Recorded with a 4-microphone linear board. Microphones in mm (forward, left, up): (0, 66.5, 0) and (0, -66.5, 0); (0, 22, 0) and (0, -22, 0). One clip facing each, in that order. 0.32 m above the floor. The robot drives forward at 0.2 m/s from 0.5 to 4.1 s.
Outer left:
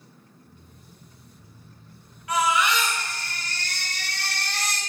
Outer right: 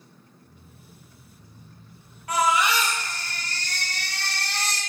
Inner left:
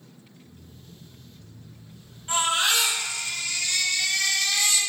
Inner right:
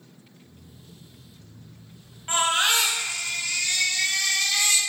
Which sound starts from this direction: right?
A baby crying, at 2.3 s.